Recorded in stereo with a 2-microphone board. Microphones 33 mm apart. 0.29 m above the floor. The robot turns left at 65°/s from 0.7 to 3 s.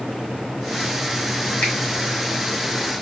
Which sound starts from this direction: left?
A finger snap, at 1.6 s.